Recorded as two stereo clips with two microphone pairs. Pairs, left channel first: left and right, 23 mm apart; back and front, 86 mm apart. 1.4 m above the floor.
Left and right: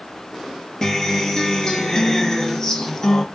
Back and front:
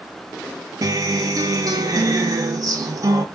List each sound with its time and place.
0.8 s a guitar: 35° left, 0.6 m